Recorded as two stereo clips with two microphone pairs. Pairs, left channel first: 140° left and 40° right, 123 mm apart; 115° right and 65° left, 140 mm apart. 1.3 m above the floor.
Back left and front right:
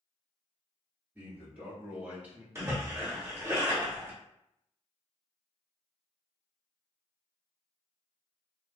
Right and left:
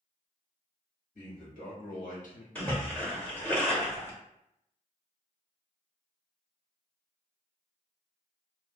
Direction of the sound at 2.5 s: 50° right.